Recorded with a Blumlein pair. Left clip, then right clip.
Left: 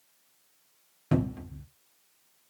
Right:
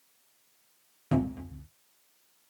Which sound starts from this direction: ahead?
A cupboard door, at 1.1 s.